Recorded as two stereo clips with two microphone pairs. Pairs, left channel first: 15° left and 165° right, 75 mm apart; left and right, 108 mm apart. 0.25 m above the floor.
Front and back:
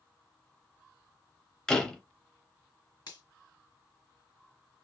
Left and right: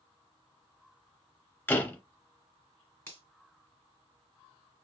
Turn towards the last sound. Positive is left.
turn(degrees=25)